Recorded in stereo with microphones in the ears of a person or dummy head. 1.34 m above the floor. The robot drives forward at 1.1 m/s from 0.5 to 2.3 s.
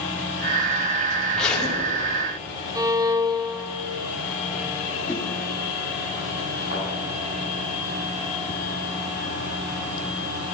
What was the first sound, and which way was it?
A zipper, 5° left (ahead or behind).